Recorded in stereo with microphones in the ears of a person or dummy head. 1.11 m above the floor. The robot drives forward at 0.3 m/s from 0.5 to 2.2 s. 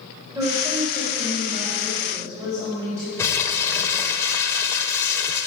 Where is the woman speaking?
25° right (ahead or behind), 4 m; by 3.1 s 20° right (ahead or behind), 4.5 m.